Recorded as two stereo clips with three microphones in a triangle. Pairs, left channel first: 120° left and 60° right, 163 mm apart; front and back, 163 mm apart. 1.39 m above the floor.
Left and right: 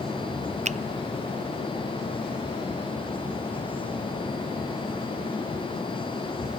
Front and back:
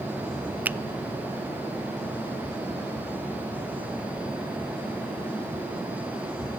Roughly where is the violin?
I don't hear a violin.